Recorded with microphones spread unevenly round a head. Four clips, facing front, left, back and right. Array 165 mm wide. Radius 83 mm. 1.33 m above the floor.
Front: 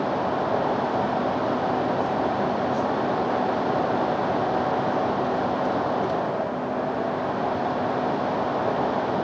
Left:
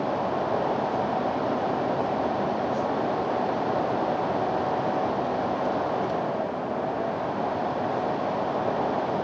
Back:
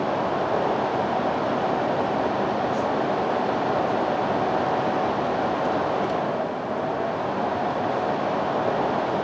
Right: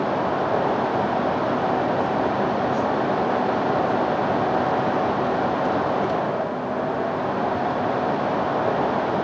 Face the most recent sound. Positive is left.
No sound to turn to.